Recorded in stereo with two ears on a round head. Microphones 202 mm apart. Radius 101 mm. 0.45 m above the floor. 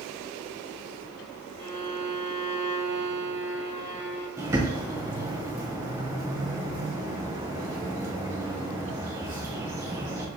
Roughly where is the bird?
Centre.